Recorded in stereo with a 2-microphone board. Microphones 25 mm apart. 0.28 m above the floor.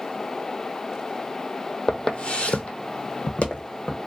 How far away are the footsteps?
About 0.5 m.